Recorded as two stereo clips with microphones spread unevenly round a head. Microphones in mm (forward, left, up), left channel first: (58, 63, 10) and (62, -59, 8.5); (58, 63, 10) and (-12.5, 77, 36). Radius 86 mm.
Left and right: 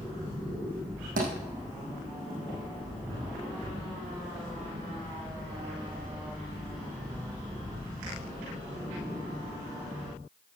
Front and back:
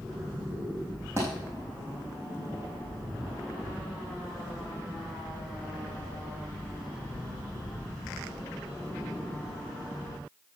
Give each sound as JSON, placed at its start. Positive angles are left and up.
{"t": 1.2, "sound": "a thud", "azimuth_deg": -95, "distance_m": 5.0}